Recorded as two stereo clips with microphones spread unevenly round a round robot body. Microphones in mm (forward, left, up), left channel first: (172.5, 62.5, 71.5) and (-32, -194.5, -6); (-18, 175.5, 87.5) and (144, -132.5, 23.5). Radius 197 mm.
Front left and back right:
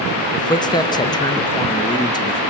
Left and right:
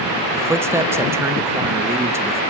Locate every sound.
0.3 s a man speaking: 40° right, 1.1 m